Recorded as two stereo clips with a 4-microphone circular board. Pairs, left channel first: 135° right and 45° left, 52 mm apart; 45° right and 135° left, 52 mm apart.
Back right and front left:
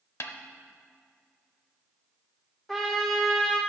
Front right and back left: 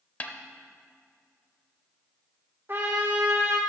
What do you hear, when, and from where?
0.2 s a snare drum: 105° right, 0.8 m
2.7 s a trumpet: 150° left, 1.4 m